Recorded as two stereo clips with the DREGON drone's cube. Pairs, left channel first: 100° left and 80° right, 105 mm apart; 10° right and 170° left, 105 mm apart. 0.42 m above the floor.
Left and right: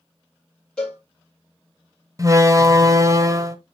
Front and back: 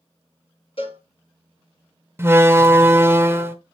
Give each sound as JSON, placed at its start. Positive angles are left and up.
{"t": 0.8, "sound": "a cowbell", "azimuth_deg": 20, "distance_m": 7.5}
{"t": 2.2, "sound": "a door slam", "azimuth_deg": -125, "distance_m": 1.1}